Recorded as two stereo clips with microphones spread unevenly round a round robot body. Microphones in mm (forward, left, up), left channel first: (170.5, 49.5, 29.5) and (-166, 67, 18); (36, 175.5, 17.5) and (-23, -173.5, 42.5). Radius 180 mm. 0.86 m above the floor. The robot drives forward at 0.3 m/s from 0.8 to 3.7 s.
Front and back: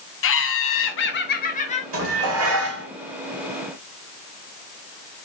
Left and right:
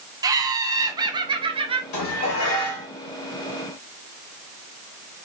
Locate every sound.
0.2 s laughter: 20° right, 0.9 m; by 1.8 s 45° right, 0.8 m
1.9 s dishes clattering: 125° left, 2.5 m; by 2.9 s 130° left, 2.5 m